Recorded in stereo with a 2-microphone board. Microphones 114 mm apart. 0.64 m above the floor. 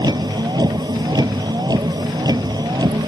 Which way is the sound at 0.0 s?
35° right (ahead or behind).